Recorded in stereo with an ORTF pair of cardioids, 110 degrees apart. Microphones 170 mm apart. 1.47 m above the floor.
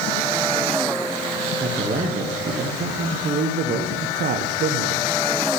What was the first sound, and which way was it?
A man speaking, 55° right.